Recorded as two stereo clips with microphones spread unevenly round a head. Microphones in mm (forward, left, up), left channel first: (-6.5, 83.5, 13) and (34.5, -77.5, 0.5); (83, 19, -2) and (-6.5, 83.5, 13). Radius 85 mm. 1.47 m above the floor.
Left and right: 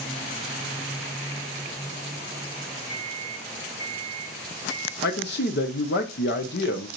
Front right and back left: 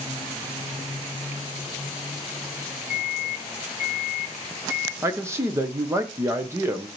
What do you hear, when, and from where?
2.9 s a microwave: 75° left, 2.5 m
5.0 s a man speaking: 75° left, 1.0 m